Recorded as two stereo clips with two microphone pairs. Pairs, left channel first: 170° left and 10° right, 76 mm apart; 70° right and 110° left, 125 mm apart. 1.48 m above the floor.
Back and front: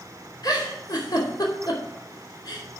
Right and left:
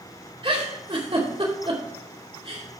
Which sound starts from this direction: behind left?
A giggle, at 0.4 s.